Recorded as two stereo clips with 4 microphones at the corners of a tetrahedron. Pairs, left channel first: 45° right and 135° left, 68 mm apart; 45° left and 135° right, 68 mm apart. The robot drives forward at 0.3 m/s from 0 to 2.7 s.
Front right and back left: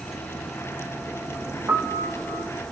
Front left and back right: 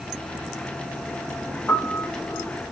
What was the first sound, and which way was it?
A piano, 115° left.